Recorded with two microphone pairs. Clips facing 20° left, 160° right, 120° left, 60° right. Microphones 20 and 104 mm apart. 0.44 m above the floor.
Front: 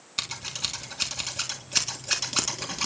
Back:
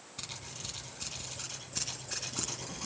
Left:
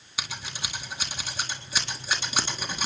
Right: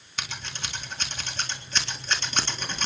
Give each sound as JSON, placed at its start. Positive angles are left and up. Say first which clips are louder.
{"t": 0.2, "sound": "scissors", "louder": "front 12 dB, even", "azimuth_deg": 40, "distance_m": 3.5}